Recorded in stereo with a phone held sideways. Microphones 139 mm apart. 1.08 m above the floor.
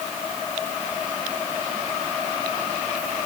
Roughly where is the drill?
I don't hear a drill.